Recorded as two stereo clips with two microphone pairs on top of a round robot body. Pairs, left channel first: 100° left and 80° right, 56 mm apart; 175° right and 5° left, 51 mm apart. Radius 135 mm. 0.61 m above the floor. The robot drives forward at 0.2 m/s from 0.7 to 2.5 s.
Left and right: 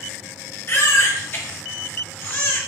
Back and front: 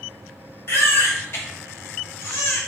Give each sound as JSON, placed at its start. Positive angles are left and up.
{"t": 0.7, "sound": "a baby crying", "azimuth_deg": 150, "distance_m": 0.9}